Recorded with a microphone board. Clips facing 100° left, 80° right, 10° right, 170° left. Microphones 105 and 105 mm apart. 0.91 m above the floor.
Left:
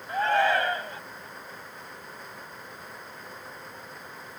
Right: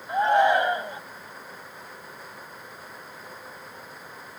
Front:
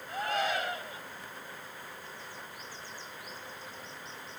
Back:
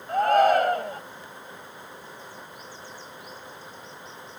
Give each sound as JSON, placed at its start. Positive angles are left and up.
{"t": 0.1, "sound": "a shout", "azimuth_deg": -150}